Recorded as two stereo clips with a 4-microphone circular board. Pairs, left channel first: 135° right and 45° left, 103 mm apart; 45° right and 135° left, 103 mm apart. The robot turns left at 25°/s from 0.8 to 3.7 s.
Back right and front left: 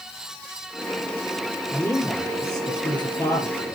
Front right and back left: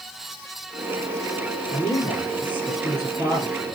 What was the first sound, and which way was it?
A man speaking, 55° right.